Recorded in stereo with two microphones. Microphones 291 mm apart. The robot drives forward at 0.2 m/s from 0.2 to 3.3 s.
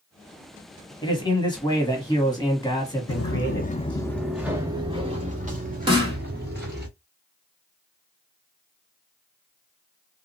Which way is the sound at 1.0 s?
15° left (ahead or behind).